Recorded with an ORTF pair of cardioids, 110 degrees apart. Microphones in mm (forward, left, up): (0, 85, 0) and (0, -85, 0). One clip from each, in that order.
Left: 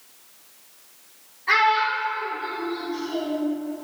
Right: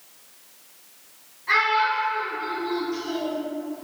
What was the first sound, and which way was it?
A child speaking, 30° left.